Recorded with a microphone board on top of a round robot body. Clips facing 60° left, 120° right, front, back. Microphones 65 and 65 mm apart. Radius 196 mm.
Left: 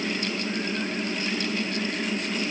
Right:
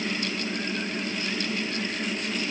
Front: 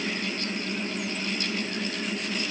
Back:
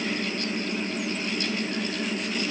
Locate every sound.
Only background noise.